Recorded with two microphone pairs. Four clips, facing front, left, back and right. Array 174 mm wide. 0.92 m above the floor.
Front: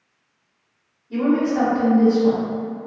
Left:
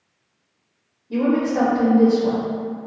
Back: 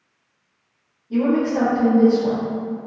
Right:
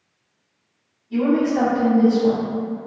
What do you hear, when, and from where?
1.1 s a woman speaking: 105° left, 0.9 m